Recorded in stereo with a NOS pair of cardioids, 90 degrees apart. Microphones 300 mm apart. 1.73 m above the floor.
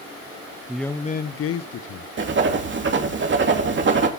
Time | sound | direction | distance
0.7 | a man speaking | 5° right | 0.7 m
2.2 | writing | 40° right | 2.5 m